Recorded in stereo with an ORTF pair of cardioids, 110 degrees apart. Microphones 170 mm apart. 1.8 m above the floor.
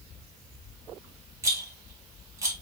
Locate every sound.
1.4 s a rattle: 20° right, 1.9 m